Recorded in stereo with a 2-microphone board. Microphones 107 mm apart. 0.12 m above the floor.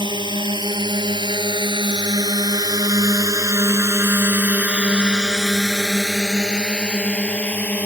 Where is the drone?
45° right (ahead or behind); by 7.9 s 15° left (ahead or behind).